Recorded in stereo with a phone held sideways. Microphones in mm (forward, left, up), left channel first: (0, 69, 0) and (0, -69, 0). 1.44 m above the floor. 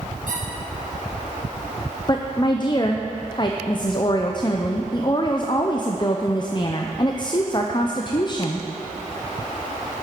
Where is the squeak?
75° right (ahead or behind), 3 m.